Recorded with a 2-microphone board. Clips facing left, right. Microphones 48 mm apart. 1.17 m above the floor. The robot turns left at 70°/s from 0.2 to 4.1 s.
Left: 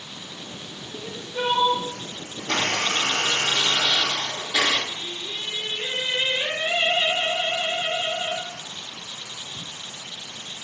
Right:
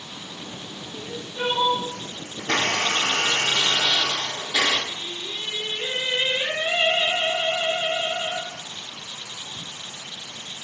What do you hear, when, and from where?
0.9 s crying: 95° left, 1.8 m; by 1.9 s 30° left, 1.8 m
2.4 s a blender: 70° right, 1.0 m; by 4.8 s 170° left, 1.0 m
4.9 s singing: 15° right (ahead or behind), 1.2 m